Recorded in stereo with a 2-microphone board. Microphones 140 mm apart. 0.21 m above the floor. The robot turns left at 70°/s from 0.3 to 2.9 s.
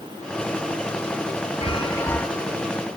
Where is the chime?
50° left, 0.7 m; by 2.3 s 5° left, 0.7 m.